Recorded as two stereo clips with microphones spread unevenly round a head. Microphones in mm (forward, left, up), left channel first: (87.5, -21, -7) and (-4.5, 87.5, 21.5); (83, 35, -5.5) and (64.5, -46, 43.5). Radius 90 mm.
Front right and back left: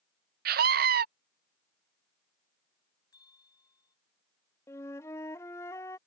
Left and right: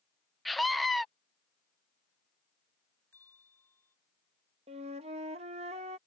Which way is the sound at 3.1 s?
15° left.